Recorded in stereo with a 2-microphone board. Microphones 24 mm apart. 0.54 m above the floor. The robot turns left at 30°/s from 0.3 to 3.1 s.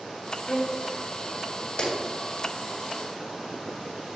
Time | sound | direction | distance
0.5 | a violin | 40° left (ahead or behind) | 1.2 m
1.8 | a clap | 55° left (ahead or behind) | 3.5 m